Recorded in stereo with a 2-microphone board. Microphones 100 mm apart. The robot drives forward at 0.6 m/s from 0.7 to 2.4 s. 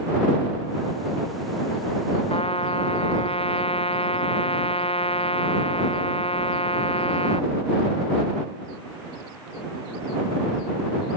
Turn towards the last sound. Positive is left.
turn(degrees=85)